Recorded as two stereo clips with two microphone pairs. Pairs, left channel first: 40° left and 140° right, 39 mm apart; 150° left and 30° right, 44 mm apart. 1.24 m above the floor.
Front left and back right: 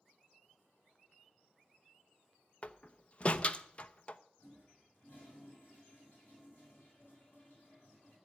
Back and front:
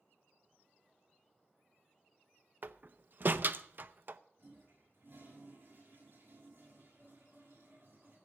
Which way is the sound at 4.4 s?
Straight ahead.